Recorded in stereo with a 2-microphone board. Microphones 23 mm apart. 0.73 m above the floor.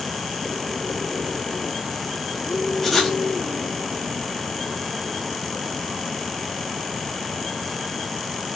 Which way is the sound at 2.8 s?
5° left (ahead or behind).